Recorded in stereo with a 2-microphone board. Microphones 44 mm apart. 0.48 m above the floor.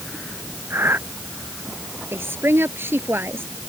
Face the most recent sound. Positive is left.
turn(degrees=-70)  # may be behind; listen again after turning